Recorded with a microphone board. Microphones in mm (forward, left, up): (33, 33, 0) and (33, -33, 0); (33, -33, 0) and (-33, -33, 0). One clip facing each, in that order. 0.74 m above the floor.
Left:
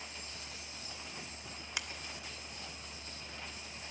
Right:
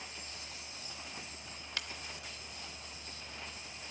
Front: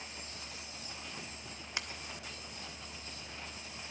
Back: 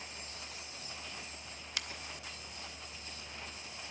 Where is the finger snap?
30° left, 0.7 m.